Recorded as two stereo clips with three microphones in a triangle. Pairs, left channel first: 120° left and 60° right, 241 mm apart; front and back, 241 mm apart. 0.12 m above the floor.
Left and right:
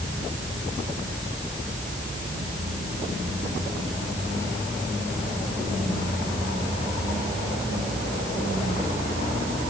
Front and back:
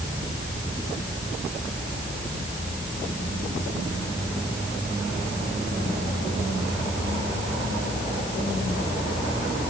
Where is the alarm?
I don't hear an alarm.